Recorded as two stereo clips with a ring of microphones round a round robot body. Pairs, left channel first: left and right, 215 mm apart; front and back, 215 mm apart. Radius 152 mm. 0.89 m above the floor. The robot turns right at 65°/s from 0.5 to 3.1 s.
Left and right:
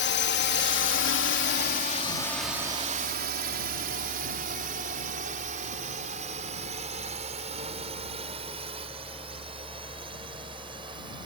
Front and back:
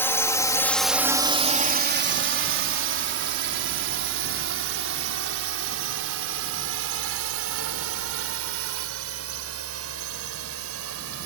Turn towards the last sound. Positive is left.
turn(degrees=-165)